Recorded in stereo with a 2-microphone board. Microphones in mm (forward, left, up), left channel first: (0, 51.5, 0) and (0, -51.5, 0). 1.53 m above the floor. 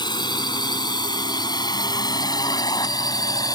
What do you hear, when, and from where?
0.0 s a drone: 45° left (ahead or behind); by 3.6 s 40° left (ahead or behind)